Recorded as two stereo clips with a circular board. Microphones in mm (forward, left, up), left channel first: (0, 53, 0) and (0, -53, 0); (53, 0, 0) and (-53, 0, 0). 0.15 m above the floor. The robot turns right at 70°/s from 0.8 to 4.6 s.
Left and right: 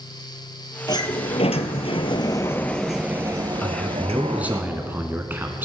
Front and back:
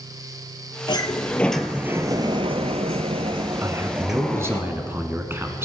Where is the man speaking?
150° left, 1.3 m; by 5.7 s 140° right, 1.3 m.